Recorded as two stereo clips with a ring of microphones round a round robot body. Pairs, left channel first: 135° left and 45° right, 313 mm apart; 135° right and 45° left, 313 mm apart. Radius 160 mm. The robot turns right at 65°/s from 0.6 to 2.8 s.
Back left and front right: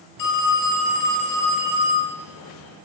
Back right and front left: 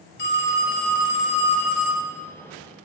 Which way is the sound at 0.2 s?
165° left.